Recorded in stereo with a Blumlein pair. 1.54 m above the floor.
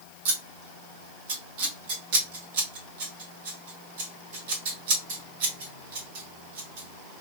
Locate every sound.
0.2 s scissors: 50° right, 1.5 m